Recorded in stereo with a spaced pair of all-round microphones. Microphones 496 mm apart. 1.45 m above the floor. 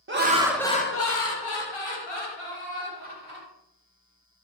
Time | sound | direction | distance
0.1 | laughter | 25° right (ahead or behind) | 0.6 m